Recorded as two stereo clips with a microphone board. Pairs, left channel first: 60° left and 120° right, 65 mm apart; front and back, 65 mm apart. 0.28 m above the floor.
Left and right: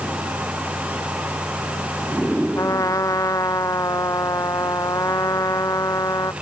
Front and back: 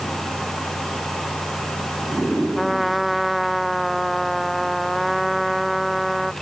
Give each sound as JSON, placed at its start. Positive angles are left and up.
{"t": 2.5, "sound": "a trumpet", "azimuth_deg": 90}